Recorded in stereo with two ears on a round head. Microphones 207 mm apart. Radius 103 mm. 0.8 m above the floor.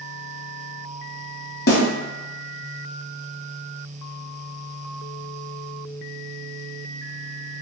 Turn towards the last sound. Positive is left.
turn(degrees=45)  # may be behind; listen again after turning